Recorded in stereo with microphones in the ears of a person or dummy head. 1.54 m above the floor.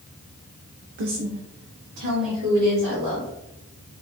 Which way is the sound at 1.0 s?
50° right (ahead or behind).